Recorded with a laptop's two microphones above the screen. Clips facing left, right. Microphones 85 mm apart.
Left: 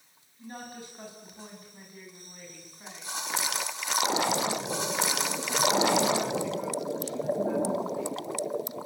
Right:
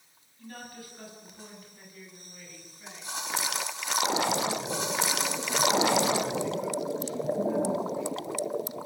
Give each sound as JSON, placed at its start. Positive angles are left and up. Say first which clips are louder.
{"t": 0.4, "sound": "a woman speaking", "louder": "left 2 dB", "side_deg": 20, "distance_m": 8.0}